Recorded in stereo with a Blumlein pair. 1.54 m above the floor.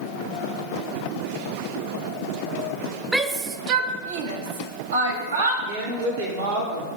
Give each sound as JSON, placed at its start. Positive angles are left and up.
{"t": 3.1, "sound": "a shout", "azimuth_deg": -10, "distance_m": 0.7}
{"t": 5.7, "sound": "a woman speaking", "azimuth_deg": -55, "distance_m": 1.6}